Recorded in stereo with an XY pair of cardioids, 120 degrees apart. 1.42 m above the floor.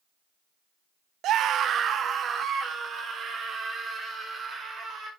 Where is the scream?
70° right, 0.6 m; by 5.1 s 40° right, 5.5 m.